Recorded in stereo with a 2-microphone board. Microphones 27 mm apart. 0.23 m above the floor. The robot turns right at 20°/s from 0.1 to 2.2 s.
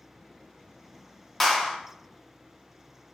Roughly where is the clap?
Centre.